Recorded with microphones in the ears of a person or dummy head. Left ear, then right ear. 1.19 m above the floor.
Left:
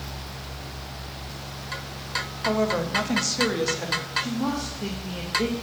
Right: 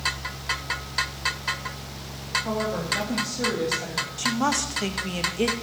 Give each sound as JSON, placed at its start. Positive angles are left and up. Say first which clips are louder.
{"t": 2.5, "sound": "a woman speaking", "louder": "left 3 dB", "side_deg": 70, "distance_m": 1.7}
{"t": 4.2, "sound": "a woman speaking", "louder": "right 4 dB", "side_deg": -50, "distance_m": 1.1}